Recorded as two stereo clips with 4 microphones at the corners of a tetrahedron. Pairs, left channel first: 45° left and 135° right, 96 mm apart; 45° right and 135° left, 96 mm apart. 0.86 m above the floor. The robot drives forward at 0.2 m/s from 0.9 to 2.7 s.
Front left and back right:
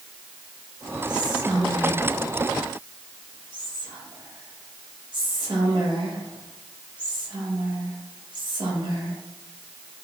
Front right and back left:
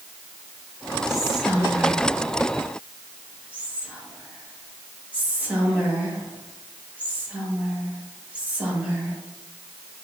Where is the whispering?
140° right, 0.8 m; by 9.2 s 155° right, 1.0 m.